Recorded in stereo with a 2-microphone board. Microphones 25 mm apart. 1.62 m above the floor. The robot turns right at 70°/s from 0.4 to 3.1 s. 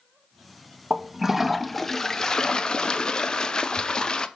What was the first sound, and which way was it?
A toilet flushing, 45° right.